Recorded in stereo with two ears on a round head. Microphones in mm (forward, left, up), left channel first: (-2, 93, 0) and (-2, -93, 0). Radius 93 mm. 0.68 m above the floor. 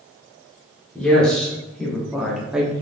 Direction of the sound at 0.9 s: 5° left (ahead or behind).